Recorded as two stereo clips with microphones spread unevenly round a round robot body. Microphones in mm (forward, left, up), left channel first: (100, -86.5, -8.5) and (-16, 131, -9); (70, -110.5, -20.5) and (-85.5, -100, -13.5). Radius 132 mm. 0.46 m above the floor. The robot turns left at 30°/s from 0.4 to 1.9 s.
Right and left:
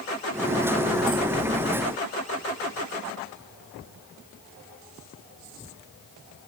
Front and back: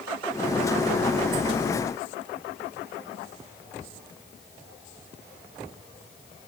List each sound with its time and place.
Only background noise.